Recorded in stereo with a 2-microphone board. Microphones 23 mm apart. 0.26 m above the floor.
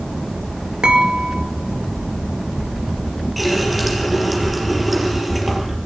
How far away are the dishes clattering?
About 2.5 m.